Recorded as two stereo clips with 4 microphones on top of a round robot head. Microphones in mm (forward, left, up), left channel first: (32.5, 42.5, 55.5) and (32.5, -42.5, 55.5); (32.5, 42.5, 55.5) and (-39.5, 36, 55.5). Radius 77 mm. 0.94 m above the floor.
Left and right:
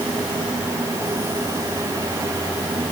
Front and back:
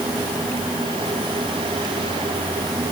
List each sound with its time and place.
Only background noise.